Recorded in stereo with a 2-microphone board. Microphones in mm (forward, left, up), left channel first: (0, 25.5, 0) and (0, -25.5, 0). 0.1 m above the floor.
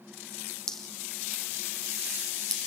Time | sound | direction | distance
0.7 | dripping | 10° left (ahead or behind) | 3.5 m